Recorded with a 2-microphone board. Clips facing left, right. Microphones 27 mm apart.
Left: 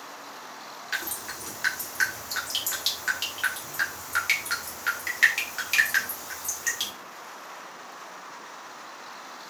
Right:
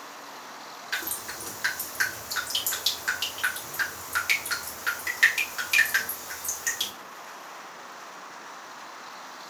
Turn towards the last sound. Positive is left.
turn(degrees=5)  # may be behind; listen again after turning